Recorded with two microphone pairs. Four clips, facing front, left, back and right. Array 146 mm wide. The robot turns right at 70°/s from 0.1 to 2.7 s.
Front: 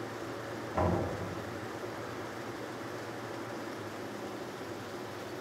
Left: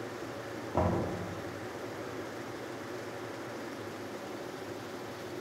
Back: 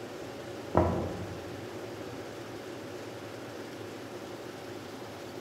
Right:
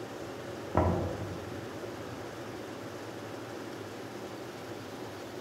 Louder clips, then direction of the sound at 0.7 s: Right 1 dB, back 4 dB; 165° right.